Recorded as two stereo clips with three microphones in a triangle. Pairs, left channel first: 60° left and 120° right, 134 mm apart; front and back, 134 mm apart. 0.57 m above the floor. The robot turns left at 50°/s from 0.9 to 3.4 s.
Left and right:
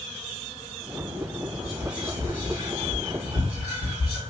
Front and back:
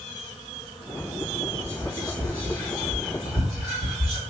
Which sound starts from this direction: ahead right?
Whispering, at 1.6 s.